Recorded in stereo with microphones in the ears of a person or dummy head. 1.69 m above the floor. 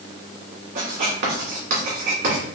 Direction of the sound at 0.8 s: 60° right (ahead or behind).